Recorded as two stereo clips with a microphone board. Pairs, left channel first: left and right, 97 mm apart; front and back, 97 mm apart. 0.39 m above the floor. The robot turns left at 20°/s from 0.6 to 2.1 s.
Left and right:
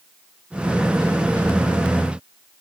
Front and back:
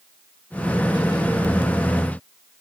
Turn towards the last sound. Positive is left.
No sound to turn to.